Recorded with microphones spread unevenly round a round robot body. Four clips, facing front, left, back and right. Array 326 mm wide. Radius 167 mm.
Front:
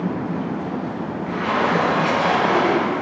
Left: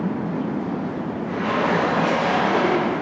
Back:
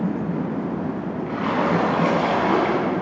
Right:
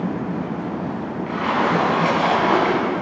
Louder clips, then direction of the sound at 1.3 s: Right 2 dB, front 1 dB; 100° right.